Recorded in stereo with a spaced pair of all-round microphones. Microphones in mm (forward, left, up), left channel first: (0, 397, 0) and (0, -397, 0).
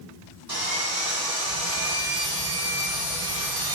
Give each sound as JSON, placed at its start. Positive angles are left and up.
{"t": 0.5, "sound": "sawing", "side_deg": -30, "distance_m": 10.0}